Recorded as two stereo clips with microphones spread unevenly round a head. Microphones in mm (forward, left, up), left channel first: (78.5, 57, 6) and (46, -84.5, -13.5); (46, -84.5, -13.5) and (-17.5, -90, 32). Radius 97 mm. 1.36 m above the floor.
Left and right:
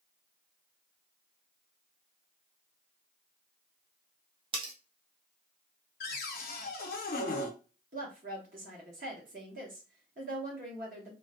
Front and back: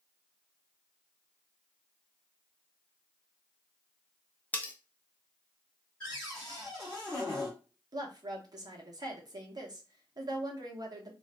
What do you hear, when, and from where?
4.5 s cutlery clinking: 115° right, 0.5 m
6.0 s a cupboard door: 100° left, 0.6 m
7.9 s a woman speaking: 135° right, 1.0 m